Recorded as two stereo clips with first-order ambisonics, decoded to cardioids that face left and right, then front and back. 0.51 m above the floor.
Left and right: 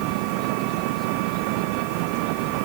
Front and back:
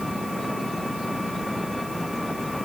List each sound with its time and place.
0.0 s an engine running: 85° right